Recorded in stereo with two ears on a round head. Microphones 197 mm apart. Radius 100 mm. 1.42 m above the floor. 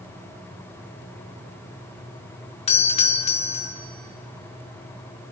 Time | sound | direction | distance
2.7 | a doorbell | 30° left (ahead or behind) | 1.0 m